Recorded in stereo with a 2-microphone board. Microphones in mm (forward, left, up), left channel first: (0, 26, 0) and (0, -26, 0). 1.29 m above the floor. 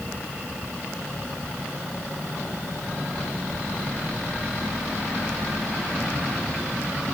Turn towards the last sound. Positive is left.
No sound to turn to.